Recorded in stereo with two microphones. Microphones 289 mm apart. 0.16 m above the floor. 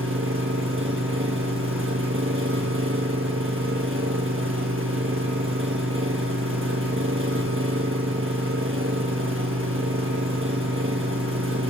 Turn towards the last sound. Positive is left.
turn(degrees=-45)  # may be behind; listen again after turning